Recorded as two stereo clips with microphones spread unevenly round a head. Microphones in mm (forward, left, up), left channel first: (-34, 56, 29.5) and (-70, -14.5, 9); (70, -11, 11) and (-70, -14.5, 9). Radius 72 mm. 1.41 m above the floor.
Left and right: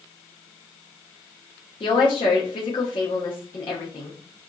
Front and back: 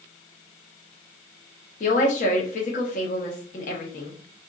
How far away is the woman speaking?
About 0.7 m.